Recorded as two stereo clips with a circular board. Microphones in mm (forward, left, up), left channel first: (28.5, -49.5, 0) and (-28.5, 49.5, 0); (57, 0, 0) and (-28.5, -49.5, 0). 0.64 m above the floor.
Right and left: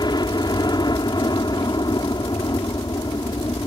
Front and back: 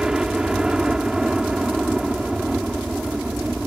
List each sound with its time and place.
0.0 s a helicopter: 70° right